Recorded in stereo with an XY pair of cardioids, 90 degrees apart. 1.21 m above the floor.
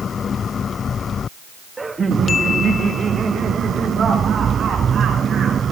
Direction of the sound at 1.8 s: 25° right.